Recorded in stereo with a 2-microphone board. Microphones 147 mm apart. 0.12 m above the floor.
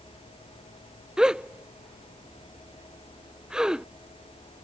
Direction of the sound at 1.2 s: 5° right (ahead or behind).